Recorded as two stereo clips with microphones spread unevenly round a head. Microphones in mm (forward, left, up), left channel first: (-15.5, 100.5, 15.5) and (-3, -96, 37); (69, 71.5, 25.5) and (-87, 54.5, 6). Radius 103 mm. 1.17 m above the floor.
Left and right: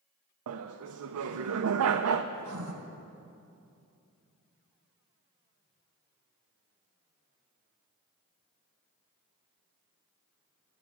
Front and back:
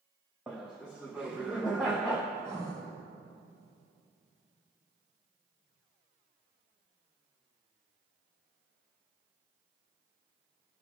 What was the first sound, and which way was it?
Laughter, 85° right.